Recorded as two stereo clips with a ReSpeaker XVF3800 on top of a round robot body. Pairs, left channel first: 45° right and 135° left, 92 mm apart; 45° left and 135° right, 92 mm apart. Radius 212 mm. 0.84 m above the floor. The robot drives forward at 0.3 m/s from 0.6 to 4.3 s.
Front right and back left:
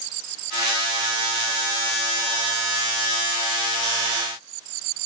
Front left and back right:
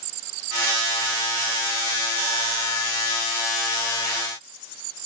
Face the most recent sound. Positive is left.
No sound to turn to.